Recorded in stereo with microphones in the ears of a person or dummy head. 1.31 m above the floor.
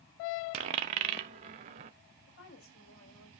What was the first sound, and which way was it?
A dropped coin, 30° right (ahead or behind).